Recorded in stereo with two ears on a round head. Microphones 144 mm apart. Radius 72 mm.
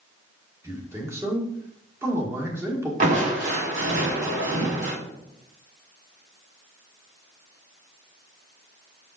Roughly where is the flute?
I don't hear a flute.